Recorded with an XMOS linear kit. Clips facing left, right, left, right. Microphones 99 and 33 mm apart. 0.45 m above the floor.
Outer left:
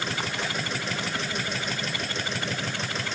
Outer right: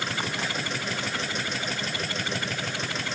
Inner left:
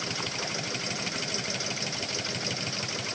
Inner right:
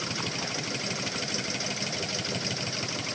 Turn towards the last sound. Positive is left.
No sound to turn to.